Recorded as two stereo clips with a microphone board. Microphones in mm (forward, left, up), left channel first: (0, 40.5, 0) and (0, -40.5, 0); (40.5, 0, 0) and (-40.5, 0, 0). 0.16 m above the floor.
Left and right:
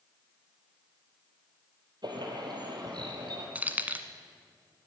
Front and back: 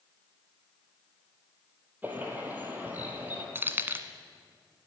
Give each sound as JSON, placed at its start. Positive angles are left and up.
{"t": 2.0, "sound": "a bird", "azimuth_deg": -115, "distance_m": 2.0}
{"t": 3.5, "sound": "keys jangling", "azimuth_deg": -145, "distance_m": 0.8}